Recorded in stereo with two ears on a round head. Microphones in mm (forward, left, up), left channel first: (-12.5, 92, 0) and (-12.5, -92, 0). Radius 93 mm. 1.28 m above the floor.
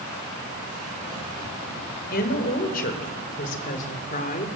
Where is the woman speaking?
45° left (ahead or behind), 5.5 m; by 4.5 s 40° left (ahead or behind), 4 m.